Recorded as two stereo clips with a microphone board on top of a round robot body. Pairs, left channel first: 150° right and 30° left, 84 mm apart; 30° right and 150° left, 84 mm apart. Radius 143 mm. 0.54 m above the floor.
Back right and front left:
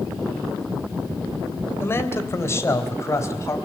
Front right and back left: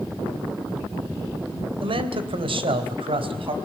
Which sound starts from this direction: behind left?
A man speaking, at 1.8 s.